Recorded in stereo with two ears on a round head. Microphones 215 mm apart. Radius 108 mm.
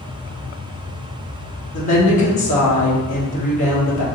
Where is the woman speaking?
30° left (ahead or behind), 1.2 m.